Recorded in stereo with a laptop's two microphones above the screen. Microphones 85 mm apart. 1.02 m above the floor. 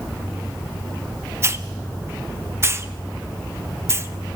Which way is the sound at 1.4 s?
30° right (ahead or behind).